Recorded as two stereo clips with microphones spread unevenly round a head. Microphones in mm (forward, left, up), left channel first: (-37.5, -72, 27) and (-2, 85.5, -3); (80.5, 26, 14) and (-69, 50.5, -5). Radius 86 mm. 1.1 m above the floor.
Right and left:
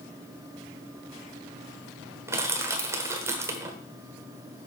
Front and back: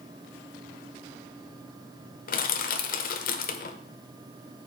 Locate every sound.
2.3 s crushing: 5° right, 1.3 m